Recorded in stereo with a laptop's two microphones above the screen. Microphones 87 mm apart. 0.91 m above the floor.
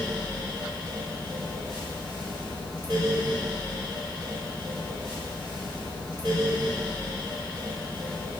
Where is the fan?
65° right (ahead or behind), 1.2 m.